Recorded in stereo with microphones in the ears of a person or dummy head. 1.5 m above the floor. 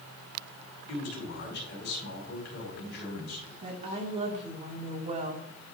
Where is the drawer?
No drawer in this recording.